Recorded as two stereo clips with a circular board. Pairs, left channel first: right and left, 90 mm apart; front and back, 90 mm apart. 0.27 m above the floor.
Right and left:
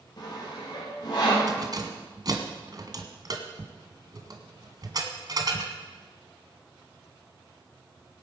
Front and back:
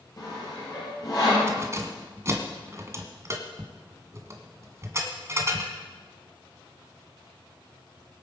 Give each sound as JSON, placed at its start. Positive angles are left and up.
{"t": 0.2, "sound": "sawing", "azimuth_deg": -50, "distance_m": 7.5}
{"t": 1.5, "sound": "keys jangling", "azimuth_deg": 125, "distance_m": 1.9}